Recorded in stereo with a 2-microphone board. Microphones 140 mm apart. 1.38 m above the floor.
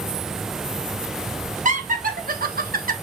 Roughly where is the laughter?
Right.